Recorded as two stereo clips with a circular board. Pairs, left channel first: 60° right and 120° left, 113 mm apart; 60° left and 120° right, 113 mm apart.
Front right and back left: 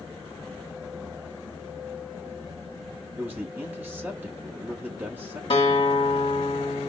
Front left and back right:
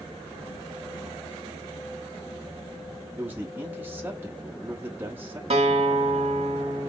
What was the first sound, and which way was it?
A man speaking, straight behind.